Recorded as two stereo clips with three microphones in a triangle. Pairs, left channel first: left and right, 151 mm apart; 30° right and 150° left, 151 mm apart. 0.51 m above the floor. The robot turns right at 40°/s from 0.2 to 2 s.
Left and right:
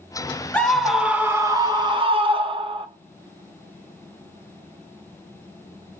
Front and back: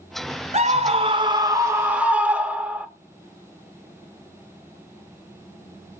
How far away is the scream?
About 1.4 m.